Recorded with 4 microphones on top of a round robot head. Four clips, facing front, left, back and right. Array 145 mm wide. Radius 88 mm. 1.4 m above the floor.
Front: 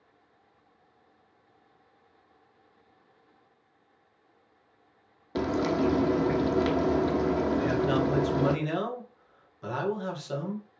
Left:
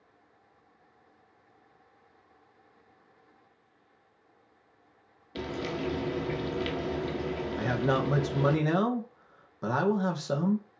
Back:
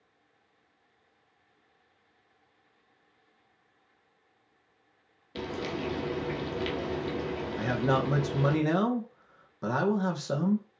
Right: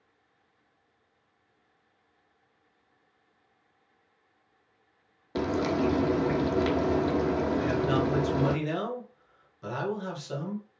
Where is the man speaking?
130° left, 2.0 m.